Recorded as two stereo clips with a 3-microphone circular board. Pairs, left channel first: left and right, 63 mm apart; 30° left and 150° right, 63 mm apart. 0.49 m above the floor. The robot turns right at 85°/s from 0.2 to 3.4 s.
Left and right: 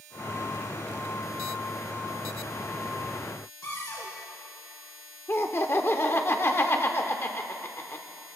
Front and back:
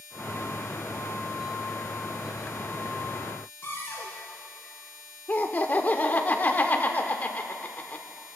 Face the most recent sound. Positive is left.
turn(degrees=70)